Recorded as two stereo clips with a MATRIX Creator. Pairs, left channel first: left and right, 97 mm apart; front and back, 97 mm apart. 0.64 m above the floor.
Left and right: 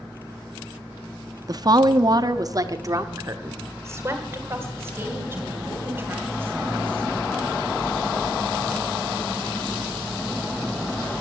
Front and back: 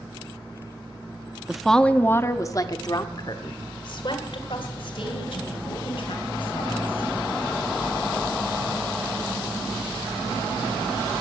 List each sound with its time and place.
1.5 s a woman speaking: 100° right, 0.6 m; by 7.2 s 20° right, 3.5 m